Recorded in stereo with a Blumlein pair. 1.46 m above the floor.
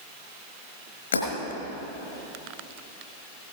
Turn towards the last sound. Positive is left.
turn(degrees=70)